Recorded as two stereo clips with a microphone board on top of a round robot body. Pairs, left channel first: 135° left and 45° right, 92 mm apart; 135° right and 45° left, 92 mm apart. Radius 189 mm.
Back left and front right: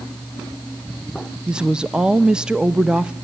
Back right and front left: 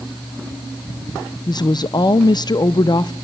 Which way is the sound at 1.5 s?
125° right.